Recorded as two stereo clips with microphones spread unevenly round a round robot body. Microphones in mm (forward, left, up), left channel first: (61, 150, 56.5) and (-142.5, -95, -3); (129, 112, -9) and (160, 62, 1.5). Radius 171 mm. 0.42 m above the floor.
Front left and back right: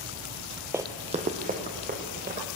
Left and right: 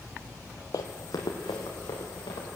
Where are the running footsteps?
140° left, 0.6 m; by 2.5 s 165° left, 3 m.